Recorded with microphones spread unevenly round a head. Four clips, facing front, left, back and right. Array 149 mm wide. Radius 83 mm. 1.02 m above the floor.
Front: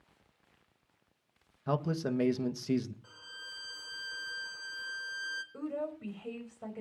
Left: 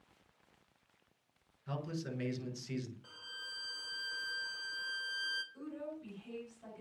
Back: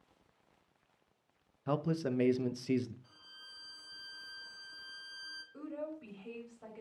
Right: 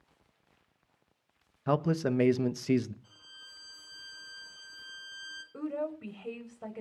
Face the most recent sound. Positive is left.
turn(degrees=-55)